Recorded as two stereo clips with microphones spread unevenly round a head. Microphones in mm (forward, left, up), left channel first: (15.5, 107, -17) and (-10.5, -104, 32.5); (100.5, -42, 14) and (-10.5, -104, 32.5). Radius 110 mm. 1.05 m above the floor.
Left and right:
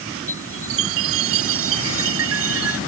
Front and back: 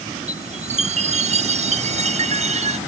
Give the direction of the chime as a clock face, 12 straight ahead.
4 o'clock.